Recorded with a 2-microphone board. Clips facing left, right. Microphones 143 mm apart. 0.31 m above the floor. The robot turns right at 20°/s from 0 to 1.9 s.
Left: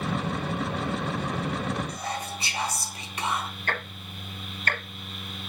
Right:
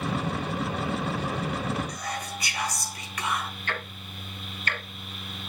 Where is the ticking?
45° left (ahead or behind), 1.2 m.